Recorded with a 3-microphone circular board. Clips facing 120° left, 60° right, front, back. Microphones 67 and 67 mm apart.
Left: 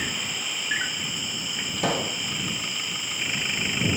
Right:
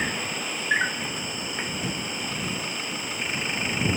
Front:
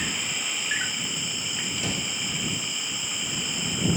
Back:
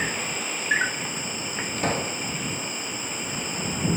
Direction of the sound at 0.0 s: 120° right.